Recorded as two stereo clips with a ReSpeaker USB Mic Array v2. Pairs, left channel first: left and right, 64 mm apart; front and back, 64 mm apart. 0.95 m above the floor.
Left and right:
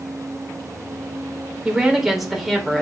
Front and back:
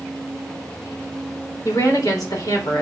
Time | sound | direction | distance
1.6 | a woman speaking | 10° right | 3.5 m